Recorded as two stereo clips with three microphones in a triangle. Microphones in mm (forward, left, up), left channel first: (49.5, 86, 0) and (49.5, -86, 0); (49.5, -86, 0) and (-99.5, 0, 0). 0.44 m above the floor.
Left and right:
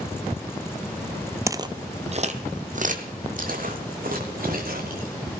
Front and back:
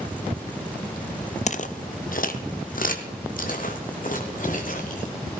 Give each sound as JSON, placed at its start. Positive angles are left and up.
{"t": 1.5, "sound": "footsteps", "azimuth_deg": -25, "distance_m": 0.6}